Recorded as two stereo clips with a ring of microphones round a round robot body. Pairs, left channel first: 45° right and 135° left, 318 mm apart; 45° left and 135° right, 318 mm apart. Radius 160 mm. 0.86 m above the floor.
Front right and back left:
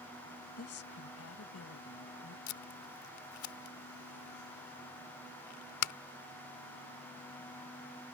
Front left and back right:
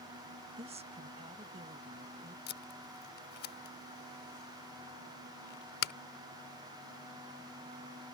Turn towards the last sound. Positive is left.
turn(degrees=-15)